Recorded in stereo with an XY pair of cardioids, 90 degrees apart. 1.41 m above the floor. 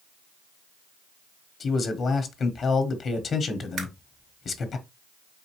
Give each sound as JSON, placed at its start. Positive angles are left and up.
{"t": 1.6, "sound": "a man speaking", "azimuth_deg": 55, "distance_m": 1.1}
{"t": 3.8, "sound": "a camera shutter", "azimuth_deg": -65, "distance_m": 2.5}